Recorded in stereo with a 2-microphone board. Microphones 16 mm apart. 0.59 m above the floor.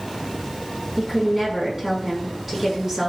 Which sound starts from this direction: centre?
A woman speaking, at 1.0 s.